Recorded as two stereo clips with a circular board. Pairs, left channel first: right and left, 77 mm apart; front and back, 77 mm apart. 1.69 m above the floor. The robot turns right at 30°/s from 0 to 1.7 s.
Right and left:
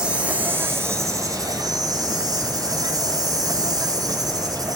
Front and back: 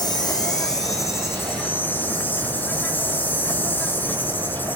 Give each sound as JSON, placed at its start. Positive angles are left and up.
{"t": 0.0, "sound": "an insect", "azimuth_deg": 10, "distance_m": 0.9}